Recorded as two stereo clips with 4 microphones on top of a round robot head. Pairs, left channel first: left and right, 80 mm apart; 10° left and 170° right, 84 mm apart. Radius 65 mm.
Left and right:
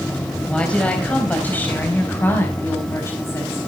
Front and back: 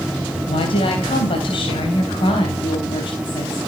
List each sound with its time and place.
0.5 s a woman speaking: 15° left, 3.5 m; by 3.6 s 40° left, 4.5 m